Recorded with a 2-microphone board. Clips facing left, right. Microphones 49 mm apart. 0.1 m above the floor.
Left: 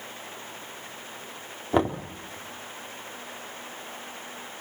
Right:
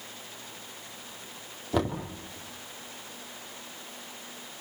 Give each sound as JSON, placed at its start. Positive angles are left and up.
{"t": 1.7, "sound": "knocking", "side_deg": 30, "distance_m": 3.5}